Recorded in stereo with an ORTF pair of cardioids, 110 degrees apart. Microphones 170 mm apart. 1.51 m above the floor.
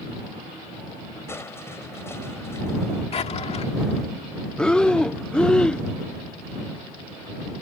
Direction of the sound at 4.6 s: 5° left.